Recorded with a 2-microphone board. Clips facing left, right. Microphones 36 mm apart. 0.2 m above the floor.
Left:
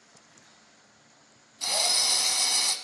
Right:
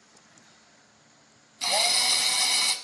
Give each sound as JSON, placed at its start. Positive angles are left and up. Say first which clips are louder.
{"t": 1.6, "sound": "a drill", "louder": "right 3 dB", "side_deg": -35, "distance_m": 0.7}